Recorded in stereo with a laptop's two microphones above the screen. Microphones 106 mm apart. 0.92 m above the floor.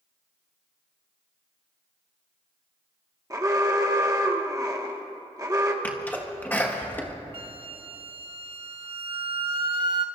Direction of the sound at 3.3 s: 30° right (ahead or behind).